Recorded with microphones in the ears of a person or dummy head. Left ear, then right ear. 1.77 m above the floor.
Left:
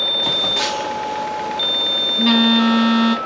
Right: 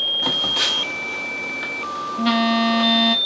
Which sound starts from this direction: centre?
A phone buzzing, at 0.2 s.